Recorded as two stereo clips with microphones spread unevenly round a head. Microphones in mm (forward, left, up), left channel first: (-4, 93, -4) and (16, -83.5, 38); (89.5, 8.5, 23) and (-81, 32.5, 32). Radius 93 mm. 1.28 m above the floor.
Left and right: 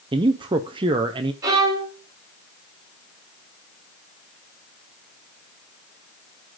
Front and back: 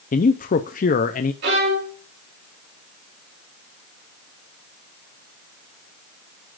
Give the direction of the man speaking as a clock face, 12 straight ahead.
12 o'clock.